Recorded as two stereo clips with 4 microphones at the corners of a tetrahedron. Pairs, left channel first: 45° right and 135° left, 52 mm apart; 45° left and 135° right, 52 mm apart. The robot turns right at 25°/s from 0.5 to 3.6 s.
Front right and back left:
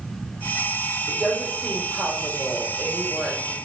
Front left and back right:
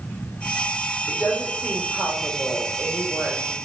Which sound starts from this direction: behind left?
A woman speaking, at 1.1 s.